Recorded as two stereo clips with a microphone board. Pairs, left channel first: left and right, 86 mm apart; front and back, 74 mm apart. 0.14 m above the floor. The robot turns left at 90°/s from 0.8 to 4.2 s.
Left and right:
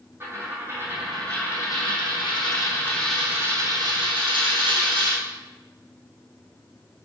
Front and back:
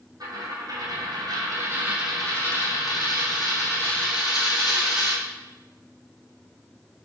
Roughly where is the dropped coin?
Behind right.